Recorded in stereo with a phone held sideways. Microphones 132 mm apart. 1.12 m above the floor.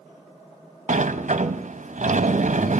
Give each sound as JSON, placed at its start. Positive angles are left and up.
{"t": 0.9, "sound": "a sliding door", "side_deg": -65, "distance_m": 0.8}